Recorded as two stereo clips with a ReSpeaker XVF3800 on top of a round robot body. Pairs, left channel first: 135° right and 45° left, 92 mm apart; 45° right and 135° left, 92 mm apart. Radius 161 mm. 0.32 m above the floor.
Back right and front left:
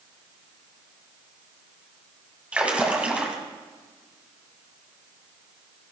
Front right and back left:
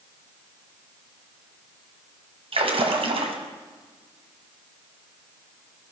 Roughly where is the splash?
Behind left.